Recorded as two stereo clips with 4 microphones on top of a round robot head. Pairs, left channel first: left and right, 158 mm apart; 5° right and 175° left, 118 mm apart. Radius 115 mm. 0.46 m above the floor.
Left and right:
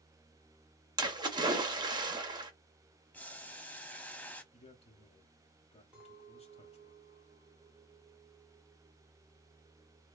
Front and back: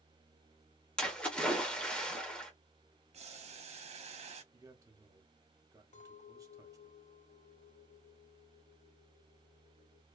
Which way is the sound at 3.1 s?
170° left.